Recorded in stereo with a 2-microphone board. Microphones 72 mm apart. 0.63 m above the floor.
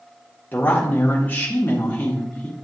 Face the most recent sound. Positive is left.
turn(degrees=25)  # may be behind; listen again after turning